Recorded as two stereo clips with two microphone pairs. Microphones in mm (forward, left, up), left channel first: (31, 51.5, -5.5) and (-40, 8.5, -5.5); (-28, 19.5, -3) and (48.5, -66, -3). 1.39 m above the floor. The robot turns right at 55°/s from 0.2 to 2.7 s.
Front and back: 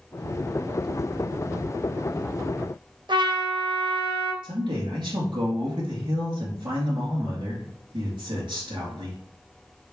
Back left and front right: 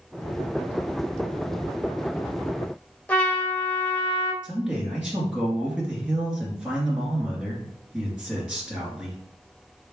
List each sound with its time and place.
3.1 s a trumpet: 150° right, 0.9 m
4.4 s a man speaking: 130° right, 2 m